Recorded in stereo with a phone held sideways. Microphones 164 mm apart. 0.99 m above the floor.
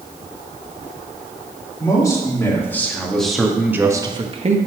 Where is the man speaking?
20° left (ahead or behind), 3 m; by 4.6 s 45° right (ahead or behind), 1.2 m.